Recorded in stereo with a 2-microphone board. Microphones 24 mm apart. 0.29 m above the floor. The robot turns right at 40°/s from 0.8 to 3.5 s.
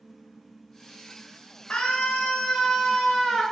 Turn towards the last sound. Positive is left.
turn(degrees=165)